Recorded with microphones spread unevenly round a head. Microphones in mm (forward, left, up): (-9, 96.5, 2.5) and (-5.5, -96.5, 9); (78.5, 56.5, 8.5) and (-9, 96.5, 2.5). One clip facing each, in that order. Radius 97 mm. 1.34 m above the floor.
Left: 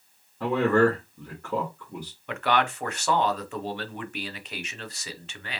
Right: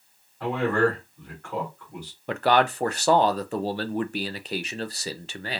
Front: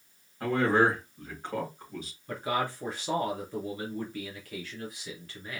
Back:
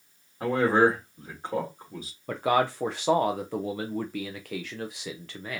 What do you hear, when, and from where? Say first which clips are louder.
0.4 s a man speaking: left 2 dB, back 3 dB; 85° left, 1.9 m
2.3 s a man speaking: right 4 dB, back 7 dB; 150° right, 0.5 m